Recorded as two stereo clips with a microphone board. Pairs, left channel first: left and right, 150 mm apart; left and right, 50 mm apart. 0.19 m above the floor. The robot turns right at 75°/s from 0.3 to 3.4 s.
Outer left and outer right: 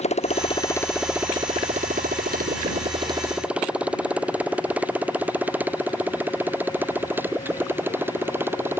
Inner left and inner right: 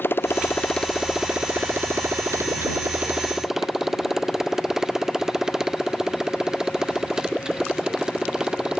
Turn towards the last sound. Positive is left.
turn(degrees=-15)  # may be behind; listen again after turning